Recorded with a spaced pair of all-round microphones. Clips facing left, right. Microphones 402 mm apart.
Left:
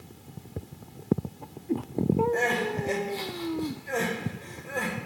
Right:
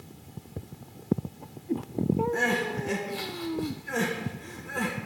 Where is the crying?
25° right (ahead or behind), 0.7 m.